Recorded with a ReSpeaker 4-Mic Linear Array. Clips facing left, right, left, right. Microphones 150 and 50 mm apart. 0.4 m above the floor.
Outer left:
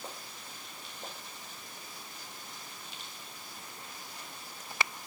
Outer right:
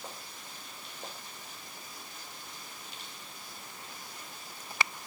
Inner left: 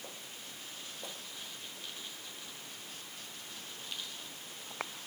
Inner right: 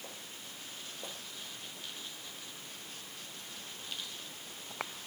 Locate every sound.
Only background noise.